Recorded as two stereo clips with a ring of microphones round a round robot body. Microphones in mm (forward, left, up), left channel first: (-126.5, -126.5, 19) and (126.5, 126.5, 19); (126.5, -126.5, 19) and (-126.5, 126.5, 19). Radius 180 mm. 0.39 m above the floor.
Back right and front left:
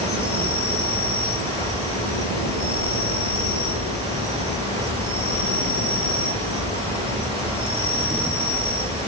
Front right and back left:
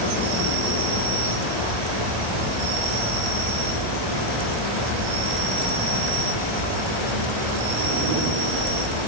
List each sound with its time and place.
0.0 s an insect: 120° left, 7 m